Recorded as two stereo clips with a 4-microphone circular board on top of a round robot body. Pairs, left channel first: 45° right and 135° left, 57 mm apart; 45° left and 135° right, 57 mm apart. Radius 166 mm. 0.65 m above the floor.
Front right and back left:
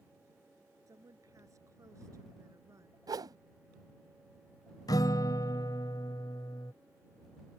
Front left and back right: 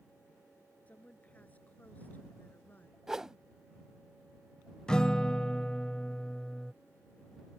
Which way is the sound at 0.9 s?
110° left.